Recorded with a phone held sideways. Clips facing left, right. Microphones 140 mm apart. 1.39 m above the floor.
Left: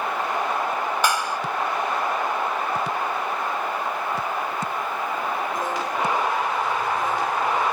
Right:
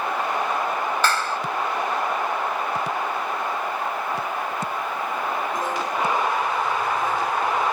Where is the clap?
15° left (ahead or behind).